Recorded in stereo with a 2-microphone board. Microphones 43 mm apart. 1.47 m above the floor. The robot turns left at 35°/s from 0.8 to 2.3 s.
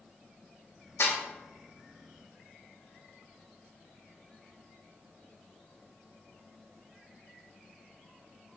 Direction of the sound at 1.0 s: 85° left.